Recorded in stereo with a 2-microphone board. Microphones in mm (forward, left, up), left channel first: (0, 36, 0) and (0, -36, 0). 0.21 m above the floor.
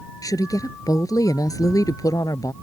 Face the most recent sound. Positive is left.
turn(degrees=55)  # may be behind; listen again after turning